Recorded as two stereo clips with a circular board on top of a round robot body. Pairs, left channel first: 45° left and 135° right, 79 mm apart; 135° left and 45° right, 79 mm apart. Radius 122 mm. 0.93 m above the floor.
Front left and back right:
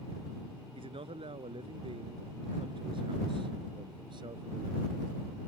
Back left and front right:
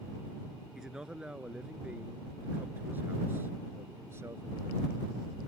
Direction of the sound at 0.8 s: 130° right.